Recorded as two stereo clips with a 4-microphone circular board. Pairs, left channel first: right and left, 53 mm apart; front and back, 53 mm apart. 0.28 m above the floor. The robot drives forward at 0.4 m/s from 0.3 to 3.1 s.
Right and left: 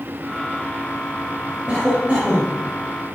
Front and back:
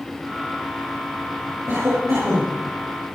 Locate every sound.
1.7 s a cough: 160° left, 5.5 m